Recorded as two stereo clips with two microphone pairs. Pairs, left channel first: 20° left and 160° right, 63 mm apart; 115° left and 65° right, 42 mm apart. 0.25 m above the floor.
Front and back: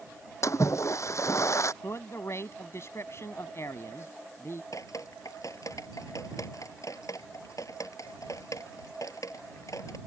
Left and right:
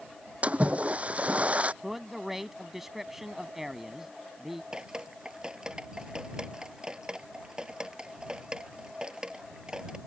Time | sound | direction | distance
0.4 | a splash | 10° right | ?
1.8 | a man speaking | 15° left | ?
4.7 | dripping | 5° left | ?